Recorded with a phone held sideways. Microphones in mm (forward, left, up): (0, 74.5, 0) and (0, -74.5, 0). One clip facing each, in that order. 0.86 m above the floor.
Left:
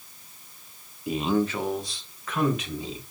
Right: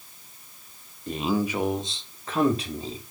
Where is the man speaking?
5° left (ahead or behind), 0.6 m; by 3.0 s 35° right (ahead or behind), 1.6 m.